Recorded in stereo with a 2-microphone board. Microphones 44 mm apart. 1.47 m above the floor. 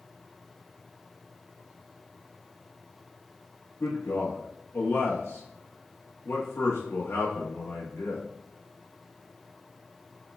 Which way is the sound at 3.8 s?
80° left.